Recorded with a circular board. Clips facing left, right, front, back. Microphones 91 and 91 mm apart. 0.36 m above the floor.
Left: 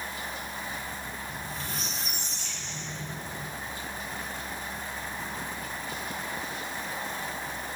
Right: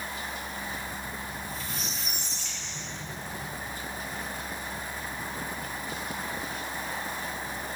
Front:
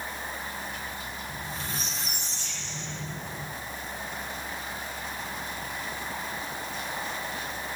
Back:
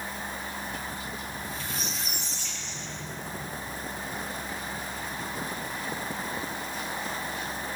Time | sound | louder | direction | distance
1.3 | a squeak | even, even | 60° left | 7 m